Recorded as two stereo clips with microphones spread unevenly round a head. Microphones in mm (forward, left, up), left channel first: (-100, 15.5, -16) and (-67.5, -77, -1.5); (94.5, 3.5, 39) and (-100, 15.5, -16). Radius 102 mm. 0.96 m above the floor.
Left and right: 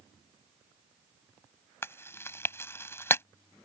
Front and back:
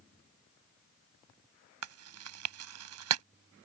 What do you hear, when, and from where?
1.8 s chewing: 175° left